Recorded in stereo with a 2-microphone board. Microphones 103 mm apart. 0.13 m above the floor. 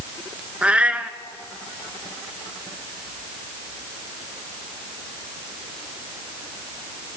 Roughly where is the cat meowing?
Centre.